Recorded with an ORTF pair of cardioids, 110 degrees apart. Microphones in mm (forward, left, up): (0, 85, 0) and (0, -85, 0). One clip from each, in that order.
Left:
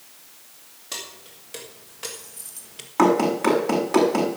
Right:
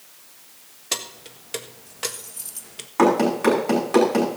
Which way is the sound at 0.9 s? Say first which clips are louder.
Right 5 dB; 50° right.